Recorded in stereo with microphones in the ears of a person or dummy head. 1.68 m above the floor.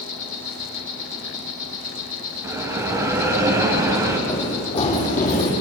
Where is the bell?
10° right (ahead or behind), 2.5 m.